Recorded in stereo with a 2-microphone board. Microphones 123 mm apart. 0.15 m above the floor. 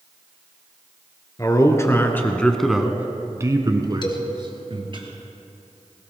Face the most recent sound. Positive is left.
turn(degrees=40)  # may be behind; listen again after turning